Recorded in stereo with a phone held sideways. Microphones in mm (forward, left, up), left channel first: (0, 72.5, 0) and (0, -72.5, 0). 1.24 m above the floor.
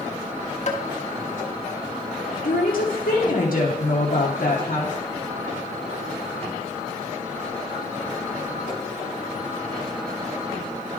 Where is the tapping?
50° left (ahead or behind), 1.0 m.